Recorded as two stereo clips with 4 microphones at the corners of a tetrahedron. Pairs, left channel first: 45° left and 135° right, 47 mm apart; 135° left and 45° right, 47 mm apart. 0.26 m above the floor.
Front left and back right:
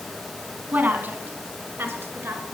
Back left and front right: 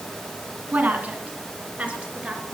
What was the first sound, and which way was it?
A woman speaking, 95° right.